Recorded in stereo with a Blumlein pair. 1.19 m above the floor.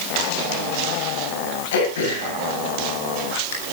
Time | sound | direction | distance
1.7 | throat clearing | 55° left | 7.5 m